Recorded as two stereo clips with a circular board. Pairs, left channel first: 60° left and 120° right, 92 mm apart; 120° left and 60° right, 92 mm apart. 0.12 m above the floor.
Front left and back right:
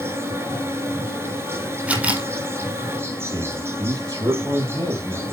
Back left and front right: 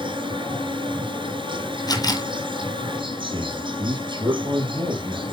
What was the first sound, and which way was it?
An insect, 60° right.